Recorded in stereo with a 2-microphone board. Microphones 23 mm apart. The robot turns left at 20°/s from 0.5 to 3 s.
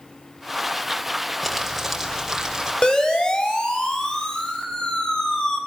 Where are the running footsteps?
No running footsteps in this recording.